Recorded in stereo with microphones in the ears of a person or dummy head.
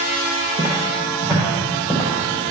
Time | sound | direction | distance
0.6 | footsteps | 30° right (ahead or behind) | 2.0 m